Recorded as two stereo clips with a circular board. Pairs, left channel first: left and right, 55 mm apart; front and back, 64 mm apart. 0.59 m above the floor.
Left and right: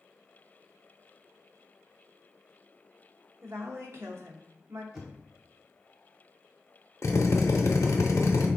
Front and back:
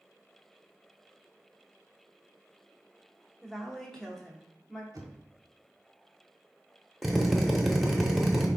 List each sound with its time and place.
3.4 s a woman speaking: 85° right, 1.0 m
4.9 s knocking: 170° right, 1.1 m
7.0 s a drill: 90° left, 0.7 m